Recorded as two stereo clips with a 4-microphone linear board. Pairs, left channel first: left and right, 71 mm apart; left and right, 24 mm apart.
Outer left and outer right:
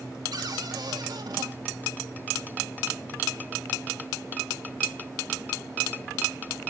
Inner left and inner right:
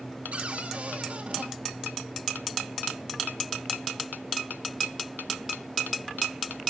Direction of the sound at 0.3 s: 75° right (ahead or behind).